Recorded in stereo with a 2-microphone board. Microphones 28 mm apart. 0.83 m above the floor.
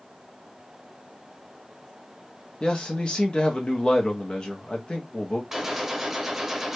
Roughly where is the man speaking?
Left.